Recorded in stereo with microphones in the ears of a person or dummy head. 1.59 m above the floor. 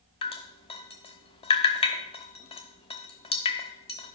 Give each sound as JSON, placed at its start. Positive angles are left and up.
{"t": 0.2, "sound": "dripping", "side_deg": 25, "distance_m": 0.6}